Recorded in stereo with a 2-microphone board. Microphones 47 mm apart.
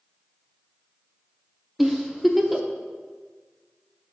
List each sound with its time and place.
1.8 s a giggle: 5° right (ahead or behind), 0.6 m